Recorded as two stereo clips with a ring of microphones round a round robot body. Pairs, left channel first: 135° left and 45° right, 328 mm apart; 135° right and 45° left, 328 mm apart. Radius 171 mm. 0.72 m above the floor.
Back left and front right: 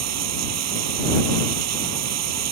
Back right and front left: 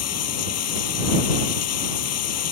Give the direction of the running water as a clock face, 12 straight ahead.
3 o'clock.